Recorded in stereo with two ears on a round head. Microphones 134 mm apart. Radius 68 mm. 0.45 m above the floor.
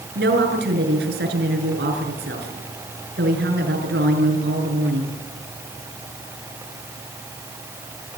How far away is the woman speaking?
About 6 m.